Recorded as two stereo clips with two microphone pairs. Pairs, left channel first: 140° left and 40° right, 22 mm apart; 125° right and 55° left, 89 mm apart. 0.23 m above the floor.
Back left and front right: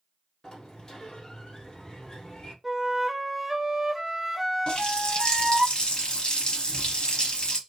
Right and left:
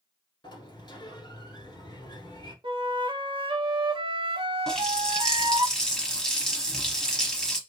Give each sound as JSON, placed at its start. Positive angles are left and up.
{"t": 0.4, "sound": "a sliding door", "azimuth_deg": -155, "distance_m": 1.2}
{"t": 2.6, "sound": "a flute", "azimuth_deg": 40, "distance_m": 0.5}
{"t": 4.7, "sound": "a running tap", "azimuth_deg": 155, "distance_m": 0.9}